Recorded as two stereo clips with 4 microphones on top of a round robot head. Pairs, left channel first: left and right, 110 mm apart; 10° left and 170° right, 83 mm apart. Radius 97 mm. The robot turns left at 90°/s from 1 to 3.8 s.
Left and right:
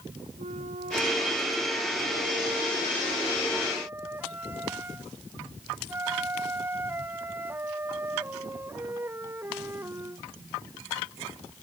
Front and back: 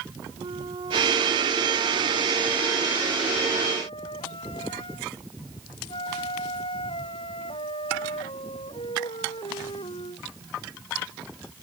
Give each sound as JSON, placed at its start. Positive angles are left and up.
{"t": 0.4, "sound": "a flute", "azimuth_deg": -125}